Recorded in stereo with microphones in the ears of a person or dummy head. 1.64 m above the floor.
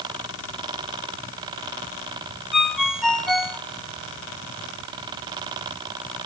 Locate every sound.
2.5 s a ringtone: 5° right (ahead or behind), 1.5 m